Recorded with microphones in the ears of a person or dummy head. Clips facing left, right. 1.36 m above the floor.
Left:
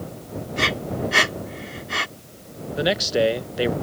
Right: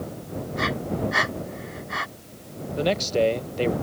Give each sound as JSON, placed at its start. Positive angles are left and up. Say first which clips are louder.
{"t": 0.6, "sound": "breathing", "louder": "left 1 dB", "side_deg": 40}
{"t": 2.8, "sound": "a man speaking", "louder": "left 1 dB", "side_deg": 10}